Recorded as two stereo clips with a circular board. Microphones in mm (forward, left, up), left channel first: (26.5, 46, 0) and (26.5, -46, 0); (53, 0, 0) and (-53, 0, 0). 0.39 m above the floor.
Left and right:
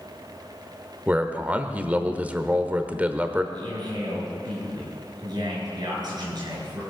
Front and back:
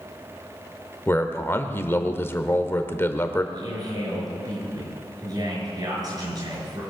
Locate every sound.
1.1 s a man speaking: 35° right, 0.9 m
3.5 s a man speaking: 130° right, 6 m